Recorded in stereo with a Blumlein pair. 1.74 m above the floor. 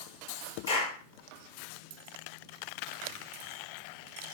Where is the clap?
70° left, 2.5 m.